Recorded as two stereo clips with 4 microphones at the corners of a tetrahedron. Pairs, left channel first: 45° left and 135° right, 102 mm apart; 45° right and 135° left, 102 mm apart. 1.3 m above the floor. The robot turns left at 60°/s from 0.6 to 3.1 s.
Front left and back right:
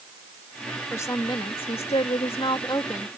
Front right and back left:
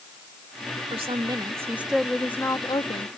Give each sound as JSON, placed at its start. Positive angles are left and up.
{"t": 0.9, "sound": "a woman speaking", "azimuth_deg": 110}